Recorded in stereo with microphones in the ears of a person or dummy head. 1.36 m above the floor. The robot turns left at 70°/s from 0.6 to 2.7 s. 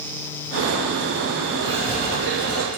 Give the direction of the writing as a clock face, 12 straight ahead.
1 o'clock.